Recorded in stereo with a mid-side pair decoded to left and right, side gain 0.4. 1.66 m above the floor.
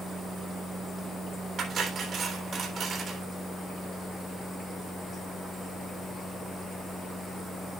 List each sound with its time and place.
1.6 s cutlery clinking: 65° right, 3.5 m